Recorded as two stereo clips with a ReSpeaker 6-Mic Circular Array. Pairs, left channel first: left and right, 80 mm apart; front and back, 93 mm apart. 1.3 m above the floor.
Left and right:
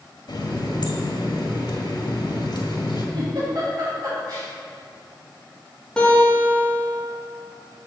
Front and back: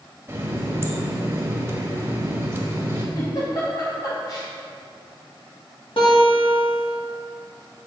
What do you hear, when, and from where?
0.3 s a running tap: 115° left, 1.5 m
3.1 s a giggle: 45° right, 3 m
6.0 s a guitar: 10° left, 2.5 m